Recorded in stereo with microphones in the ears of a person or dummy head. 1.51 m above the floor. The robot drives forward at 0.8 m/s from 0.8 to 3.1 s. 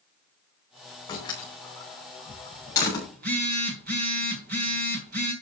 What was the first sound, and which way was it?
A door slam, 25° left (ahead or behind).